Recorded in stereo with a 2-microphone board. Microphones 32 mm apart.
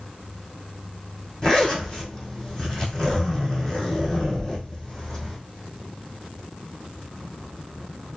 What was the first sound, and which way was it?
A zipper, 20° left (ahead or behind).